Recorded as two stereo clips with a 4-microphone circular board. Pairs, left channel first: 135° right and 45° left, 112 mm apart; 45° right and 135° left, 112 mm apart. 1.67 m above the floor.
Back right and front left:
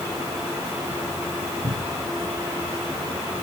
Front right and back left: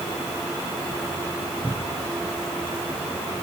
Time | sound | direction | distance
1.6 | a cupboard door | 20° left | ?